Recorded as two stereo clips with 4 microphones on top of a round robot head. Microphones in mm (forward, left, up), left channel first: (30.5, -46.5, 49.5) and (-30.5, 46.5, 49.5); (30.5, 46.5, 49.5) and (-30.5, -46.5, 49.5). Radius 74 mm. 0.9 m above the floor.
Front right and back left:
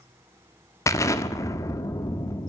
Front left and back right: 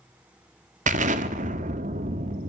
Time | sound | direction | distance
0.9 | an explosion | 120° right | 1.3 m